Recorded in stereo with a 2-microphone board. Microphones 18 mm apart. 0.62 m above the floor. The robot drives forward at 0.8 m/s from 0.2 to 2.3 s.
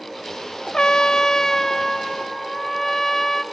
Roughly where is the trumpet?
Left.